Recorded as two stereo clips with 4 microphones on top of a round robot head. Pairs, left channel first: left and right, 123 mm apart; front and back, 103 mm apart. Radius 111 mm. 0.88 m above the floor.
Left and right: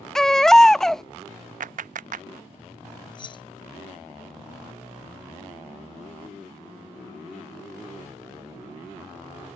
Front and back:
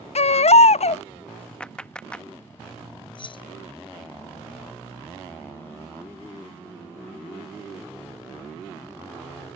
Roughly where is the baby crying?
Ahead.